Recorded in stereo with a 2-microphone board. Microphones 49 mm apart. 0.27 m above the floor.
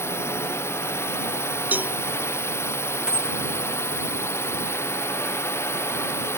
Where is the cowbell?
40° right (ahead or behind).